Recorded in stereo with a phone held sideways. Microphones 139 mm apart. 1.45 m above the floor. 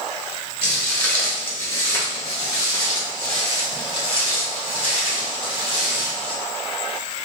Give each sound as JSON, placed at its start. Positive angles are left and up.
{"t": 0.6, "sound": "footsteps", "side_deg": 5, "distance_m": 1.6}